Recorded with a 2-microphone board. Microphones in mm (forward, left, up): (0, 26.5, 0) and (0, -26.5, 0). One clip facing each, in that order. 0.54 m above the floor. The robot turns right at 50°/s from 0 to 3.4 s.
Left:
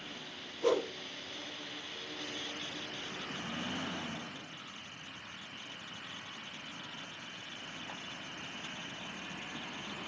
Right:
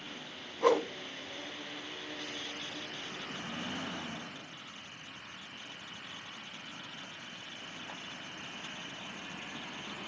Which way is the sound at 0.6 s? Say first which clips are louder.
Right 3 dB; 70° right (ahead or behind).